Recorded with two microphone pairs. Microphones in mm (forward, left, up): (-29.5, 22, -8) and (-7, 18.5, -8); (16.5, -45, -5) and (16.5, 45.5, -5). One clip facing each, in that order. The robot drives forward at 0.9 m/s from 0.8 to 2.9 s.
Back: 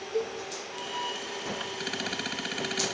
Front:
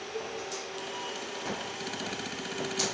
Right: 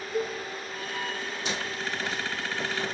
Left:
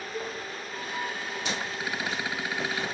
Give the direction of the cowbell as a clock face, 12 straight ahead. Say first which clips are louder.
Back 8 dB, right 7 dB; 5 o'clock.